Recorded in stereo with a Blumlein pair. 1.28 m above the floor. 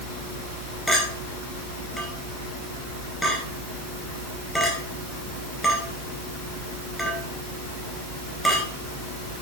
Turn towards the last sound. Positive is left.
turn(degrees=5)